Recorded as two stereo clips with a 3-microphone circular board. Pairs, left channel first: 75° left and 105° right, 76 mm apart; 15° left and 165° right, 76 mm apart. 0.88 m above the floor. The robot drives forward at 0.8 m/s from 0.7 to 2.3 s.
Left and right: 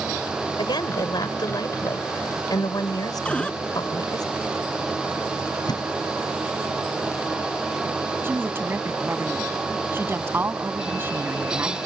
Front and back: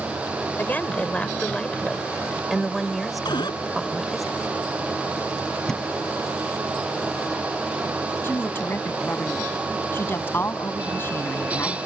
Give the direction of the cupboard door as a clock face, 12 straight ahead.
12 o'clock.